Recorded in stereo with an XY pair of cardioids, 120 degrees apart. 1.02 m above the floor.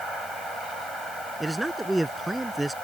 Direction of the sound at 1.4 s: 5° right.